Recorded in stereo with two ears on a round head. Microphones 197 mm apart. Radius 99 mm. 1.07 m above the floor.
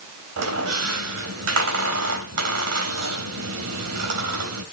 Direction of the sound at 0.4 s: 85° right.